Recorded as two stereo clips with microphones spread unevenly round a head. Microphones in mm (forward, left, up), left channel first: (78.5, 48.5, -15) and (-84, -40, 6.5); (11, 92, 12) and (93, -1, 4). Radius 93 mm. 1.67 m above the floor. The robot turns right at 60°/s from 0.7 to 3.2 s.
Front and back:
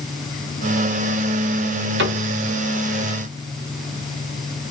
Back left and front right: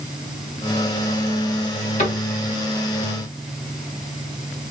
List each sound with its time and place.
2.0 s a cupboard door: 175° right, 1.6 m; by 2.2 s 160° right, 1.6 m